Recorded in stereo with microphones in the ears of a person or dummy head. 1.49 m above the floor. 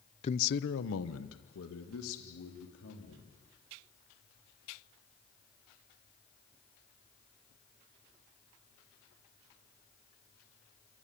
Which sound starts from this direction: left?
A man speaking, at 0.2 s.